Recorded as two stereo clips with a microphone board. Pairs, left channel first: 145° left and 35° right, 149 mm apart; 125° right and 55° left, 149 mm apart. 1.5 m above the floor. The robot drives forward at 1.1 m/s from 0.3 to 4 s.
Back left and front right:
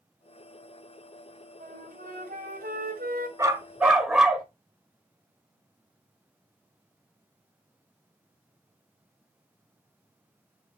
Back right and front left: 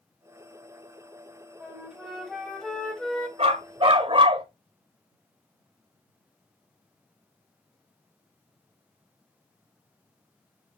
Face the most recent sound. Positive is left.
turn(degrees=50)